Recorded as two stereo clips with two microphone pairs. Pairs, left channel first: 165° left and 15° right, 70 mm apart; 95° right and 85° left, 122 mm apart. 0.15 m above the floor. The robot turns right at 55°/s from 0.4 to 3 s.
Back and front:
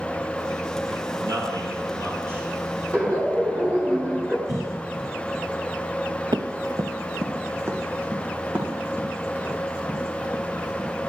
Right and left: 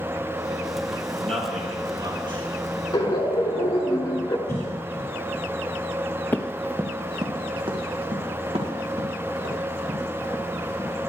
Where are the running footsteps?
25° right, 0.9 m; by 10.9 s 55° left, 6 m.